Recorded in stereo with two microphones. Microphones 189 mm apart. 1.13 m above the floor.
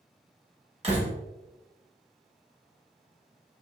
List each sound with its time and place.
0.8 s a door slam: 35° right (ahead or behind), 1.1 m